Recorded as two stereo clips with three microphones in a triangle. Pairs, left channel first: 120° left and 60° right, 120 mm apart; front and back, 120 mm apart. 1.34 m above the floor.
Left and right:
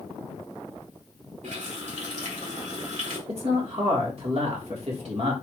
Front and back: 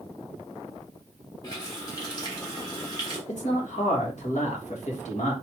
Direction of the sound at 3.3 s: 25° right.